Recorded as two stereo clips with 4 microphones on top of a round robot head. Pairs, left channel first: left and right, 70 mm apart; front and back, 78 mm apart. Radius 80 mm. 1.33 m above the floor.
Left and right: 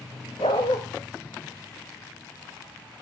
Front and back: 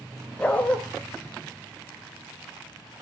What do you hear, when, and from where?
0.4 s a dog barking: 70° left, 1.4 m